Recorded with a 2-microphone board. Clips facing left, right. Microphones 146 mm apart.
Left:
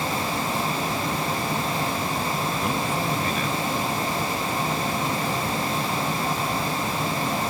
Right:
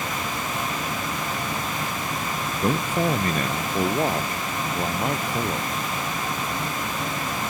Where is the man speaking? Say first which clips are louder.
Right 8 dB; 35° right (ahead or behind); by 5.7 s 70° right (ahead or behind).